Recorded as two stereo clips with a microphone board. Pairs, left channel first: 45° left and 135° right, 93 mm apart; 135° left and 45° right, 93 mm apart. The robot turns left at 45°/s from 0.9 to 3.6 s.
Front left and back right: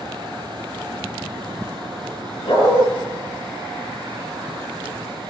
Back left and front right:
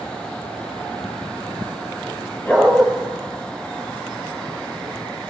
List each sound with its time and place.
2.5 s a dog barking: 65° left, 4.5 m; by 2.9 s 50° left, 4.5 m